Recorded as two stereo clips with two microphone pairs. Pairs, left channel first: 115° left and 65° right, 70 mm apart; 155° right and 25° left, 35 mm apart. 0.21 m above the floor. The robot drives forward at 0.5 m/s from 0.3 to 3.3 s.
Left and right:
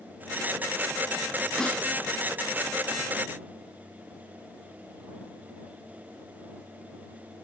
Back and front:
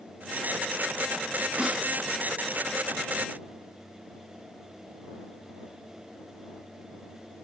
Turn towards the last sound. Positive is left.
turn(degrees=115)